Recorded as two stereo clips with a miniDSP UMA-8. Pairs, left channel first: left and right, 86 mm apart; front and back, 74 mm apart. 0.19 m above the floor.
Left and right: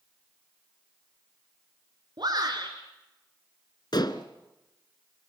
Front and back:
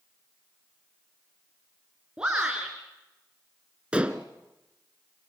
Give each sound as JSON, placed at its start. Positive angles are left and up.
{"t": 2.2, "sound": "a shout", "azimuth_deg": -105, "distance_m": 3.0}
{"t": 3.9, "sound": "dishes clattering", "azimuth_deg": 105, "distance_m": 1.5}